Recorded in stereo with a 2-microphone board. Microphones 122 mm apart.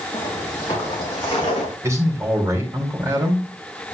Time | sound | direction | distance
0.1 | footsteps | 30° left (ahead or behind) | 6 m
1.8 | a man speaking | 25° right (ahead or behind) | 3.5 m